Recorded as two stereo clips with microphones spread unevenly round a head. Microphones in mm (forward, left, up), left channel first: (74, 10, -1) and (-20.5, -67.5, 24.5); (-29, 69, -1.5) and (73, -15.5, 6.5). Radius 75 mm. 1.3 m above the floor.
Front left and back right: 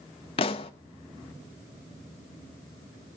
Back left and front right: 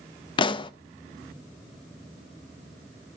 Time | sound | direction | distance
0.4 | a pop | 95° left | 0.6 m